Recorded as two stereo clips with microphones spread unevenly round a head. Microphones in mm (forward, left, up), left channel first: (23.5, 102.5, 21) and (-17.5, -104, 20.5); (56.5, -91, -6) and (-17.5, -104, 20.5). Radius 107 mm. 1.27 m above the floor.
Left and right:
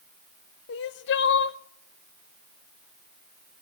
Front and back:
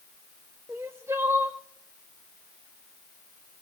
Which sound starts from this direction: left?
Crying, at 0.7 s.